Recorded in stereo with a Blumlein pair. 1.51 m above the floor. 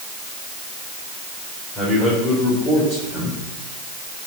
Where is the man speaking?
10° left, 5 m.